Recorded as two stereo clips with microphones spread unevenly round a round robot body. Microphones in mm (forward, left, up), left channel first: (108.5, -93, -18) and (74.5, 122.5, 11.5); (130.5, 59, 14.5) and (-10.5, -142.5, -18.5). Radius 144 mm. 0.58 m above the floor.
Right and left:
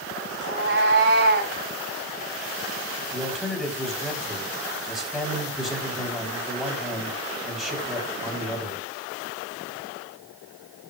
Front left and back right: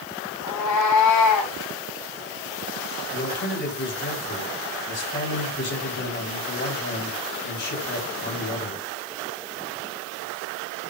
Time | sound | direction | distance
0.4 | a cat meowing | 65° left | 6 m
3.1 | a man speaking | 10° left | 4.5 m